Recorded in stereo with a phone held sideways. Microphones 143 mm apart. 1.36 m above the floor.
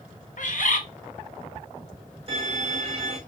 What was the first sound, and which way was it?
A bird, 65° left (ahead or behind).